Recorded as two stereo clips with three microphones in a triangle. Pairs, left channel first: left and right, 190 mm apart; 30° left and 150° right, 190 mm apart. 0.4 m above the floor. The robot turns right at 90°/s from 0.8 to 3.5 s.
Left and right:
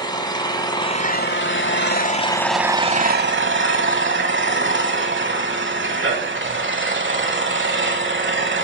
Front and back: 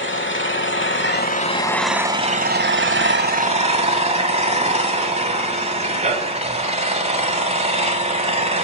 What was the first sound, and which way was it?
An engine running, 25° left.